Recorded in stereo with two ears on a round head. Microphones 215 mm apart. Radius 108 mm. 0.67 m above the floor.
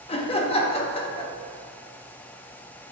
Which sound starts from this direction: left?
Laughter, at 0.1 s.